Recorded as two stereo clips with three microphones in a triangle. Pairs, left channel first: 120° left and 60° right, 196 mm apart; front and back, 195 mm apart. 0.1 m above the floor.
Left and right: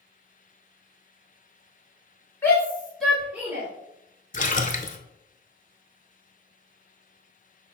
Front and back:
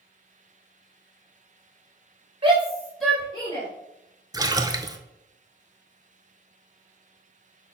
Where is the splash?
120° left, 0.5 m.